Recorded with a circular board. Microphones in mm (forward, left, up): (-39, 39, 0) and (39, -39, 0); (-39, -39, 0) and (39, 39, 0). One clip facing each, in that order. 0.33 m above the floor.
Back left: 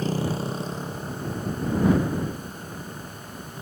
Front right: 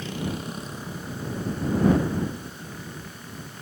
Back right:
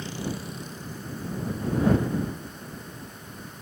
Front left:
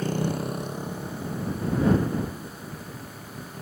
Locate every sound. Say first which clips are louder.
0.0 s a motorcycle: back left 5 dB, front left 6 dB; 85° left; by 3.6 s 65° left